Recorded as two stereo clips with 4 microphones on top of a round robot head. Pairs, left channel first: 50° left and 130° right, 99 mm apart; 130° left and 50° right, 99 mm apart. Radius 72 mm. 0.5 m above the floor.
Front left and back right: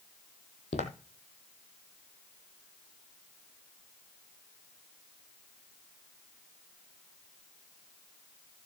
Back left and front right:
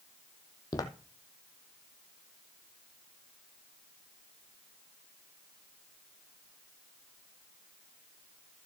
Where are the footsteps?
75° left, 1.0 m.